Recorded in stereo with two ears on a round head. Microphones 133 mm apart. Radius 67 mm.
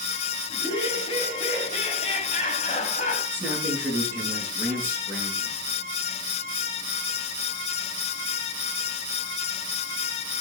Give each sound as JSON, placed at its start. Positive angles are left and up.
{"t": 0.5, "sound": "laughter", "side_deg": 35, "distance_m": 4.5}
{"t": 3.3, "sound": "a man speaking", "side_deg": -15, "distance_m": 8.0}